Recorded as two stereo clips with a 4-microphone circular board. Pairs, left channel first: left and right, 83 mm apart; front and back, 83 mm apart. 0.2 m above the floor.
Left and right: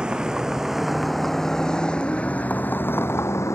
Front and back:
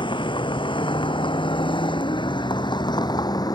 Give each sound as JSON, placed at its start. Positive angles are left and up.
{"t": 0.0, "sound": "a vehicle", "azimuth_deg": -10}